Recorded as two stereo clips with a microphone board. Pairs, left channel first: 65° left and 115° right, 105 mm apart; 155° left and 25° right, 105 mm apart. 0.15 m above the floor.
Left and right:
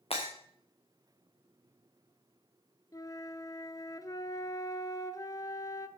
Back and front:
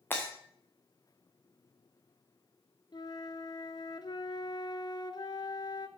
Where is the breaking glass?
90° left, 3 m.